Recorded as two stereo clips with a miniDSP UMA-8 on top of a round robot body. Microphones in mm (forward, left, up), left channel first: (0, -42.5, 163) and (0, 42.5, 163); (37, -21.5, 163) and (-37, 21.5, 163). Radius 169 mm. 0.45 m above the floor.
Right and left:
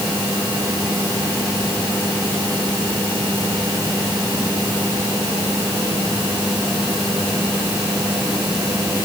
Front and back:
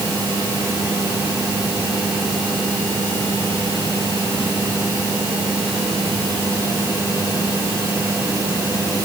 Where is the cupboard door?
I don't hear a cupboard door.